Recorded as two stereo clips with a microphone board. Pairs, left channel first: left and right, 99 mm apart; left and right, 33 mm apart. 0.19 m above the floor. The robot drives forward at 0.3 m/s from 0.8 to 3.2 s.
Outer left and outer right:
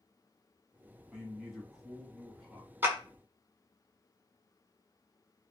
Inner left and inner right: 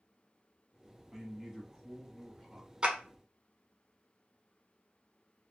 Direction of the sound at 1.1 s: 5° right (ahead or behind).